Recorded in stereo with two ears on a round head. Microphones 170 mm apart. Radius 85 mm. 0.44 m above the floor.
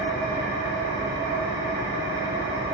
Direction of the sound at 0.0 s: 15° right (ahead or behind).